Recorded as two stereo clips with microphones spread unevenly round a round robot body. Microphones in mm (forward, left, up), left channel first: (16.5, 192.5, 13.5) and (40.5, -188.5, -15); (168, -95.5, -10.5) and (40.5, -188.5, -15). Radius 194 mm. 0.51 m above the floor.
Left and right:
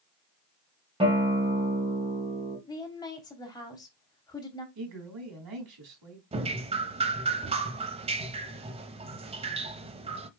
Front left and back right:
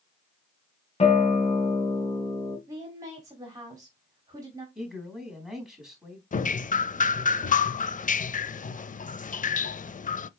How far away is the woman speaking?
About 1.0 m.